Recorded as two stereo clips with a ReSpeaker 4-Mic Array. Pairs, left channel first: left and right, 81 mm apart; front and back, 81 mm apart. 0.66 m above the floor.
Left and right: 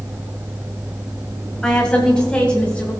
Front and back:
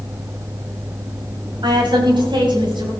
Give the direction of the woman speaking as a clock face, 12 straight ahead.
6 o'clock.